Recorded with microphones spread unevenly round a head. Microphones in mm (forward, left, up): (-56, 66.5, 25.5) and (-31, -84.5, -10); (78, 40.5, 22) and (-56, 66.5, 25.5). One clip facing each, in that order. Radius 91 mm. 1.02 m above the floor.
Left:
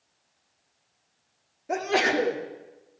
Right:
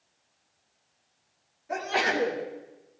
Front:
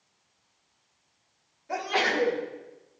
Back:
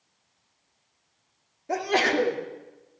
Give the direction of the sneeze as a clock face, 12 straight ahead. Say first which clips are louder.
Left 4 dB, back 4 dB; 8 o'clock.